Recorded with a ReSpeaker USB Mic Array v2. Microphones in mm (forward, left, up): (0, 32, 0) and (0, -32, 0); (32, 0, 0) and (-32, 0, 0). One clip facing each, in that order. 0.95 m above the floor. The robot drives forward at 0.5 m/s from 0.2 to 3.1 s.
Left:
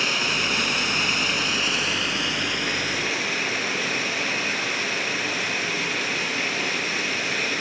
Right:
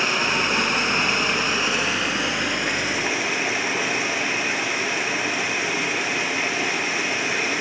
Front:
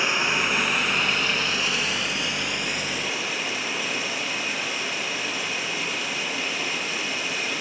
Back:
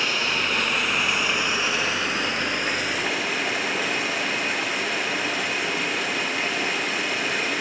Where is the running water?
60° right, 1.0 m; by 7.6 s 160° right, 1.5 m.